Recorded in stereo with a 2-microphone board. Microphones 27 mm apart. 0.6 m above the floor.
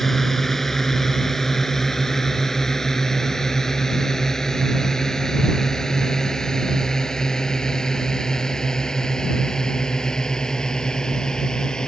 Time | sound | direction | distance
0.0 | a drone | 15° left (ahead or behind) | ?